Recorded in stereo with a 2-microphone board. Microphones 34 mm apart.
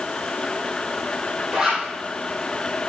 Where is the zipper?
20° right (ahead or behind), 3.5 m.